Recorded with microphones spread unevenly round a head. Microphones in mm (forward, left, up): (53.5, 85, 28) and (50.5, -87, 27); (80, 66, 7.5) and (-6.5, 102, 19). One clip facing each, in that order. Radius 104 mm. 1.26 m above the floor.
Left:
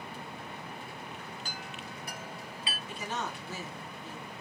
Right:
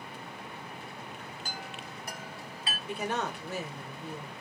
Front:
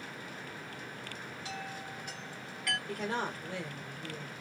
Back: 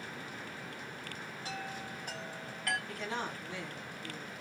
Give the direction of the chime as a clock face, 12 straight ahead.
5 o'clock.